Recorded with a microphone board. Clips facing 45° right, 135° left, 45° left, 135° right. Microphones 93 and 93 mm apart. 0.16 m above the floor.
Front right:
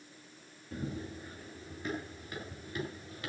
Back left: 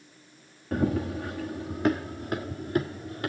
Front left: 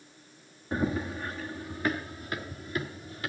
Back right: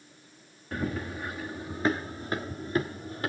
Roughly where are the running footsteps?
Behind left.